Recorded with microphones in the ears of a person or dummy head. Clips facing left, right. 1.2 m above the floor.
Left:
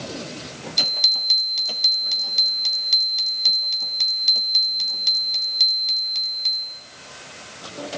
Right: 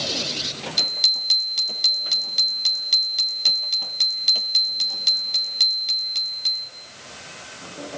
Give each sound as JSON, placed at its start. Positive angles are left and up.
{"t": 0.8, "sound": "a bicycle bell", "side_deg": 0, "distance_m": 4.0}